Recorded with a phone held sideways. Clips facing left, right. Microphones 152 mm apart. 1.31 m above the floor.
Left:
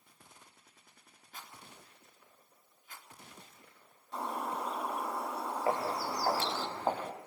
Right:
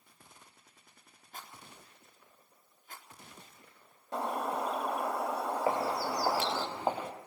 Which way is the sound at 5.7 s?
20° right (ahead or behind).